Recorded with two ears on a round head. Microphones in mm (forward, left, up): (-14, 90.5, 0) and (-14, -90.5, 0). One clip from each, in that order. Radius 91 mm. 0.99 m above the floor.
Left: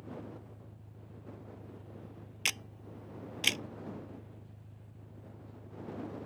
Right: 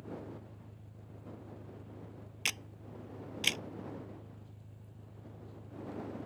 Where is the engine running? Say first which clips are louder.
Right 1 dB; 20° right (ahead or behind).